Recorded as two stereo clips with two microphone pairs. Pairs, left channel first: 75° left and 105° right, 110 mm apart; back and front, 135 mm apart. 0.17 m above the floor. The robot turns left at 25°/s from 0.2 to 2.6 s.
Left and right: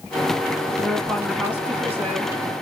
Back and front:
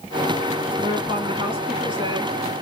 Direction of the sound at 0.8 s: 10° right.